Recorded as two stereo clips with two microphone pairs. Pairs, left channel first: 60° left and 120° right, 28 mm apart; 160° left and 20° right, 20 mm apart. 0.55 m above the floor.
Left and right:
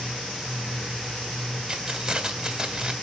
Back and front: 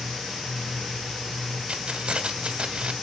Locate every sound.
1.7 s keys jangling: 55° right, 2.5 m